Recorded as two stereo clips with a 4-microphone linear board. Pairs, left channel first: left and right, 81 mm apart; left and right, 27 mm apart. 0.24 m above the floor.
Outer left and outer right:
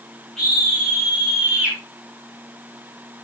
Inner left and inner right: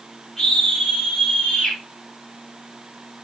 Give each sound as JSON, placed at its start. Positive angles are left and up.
{"t": 0.4, "sound": "a scream", "side_deg": 5, "distance_m": 5.5}